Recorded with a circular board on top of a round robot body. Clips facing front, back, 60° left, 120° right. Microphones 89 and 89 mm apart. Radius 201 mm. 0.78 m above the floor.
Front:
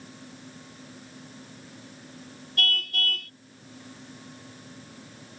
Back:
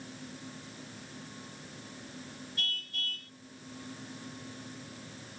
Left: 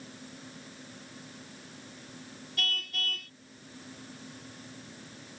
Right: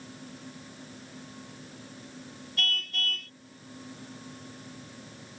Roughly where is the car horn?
Ahead right.